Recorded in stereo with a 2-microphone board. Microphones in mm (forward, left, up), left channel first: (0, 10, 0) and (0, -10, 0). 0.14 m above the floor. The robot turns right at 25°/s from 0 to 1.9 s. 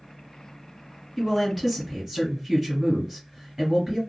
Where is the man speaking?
Centre (ahead or behind), 1.8 m; by 4.0 s 10° right (ahead or behind), 1.8 m.